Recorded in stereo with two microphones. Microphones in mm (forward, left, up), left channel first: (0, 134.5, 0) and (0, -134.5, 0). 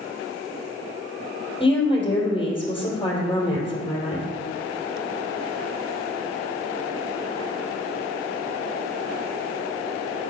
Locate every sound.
1.6 s a woman speaking: 20° left (ahead or behind), 2.5 m